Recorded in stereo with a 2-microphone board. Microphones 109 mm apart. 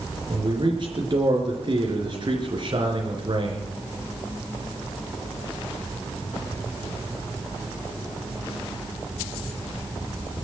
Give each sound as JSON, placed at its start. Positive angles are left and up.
{"t": 0.3, "sound": "a man speaking", "side_deg": -45, "distance_m": 4.0}